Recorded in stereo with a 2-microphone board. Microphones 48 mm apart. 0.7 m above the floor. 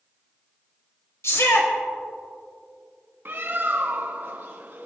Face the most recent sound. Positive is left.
turn(degrees=-50)  # may be behind; listen again after turning